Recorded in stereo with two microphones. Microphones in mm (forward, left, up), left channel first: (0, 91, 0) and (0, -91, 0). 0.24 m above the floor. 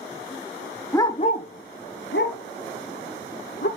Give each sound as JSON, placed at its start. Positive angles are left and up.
{"t": 0.9, "sound": "a dog barking", "side_deg": 15, "distance_m": 0.9}